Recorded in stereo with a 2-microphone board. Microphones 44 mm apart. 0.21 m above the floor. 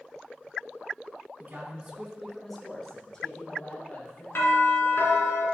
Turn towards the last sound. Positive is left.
turn(degrees=55)  # may be behind; listen again after turning